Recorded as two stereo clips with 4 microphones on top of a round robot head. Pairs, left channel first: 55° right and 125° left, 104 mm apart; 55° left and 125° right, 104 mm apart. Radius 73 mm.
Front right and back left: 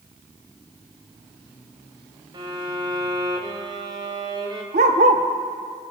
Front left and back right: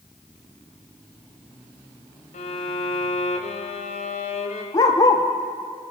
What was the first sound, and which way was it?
A violin, 75° left.